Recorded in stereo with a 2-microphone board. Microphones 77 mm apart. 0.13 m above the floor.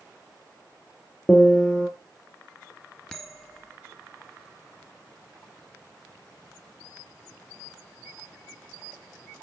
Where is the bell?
5° left (ahead or behind), 2.0 m.